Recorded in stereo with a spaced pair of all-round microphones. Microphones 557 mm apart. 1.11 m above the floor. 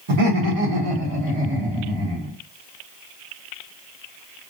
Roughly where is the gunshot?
No gunshot in this recording.